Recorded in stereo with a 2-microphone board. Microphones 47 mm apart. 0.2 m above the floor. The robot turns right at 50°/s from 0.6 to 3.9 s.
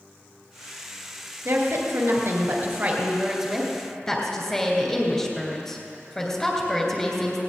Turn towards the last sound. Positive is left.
turn(degrees=10)